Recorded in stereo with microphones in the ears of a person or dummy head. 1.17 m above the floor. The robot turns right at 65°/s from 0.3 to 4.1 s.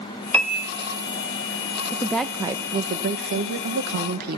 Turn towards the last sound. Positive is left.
turn(degrees=-60)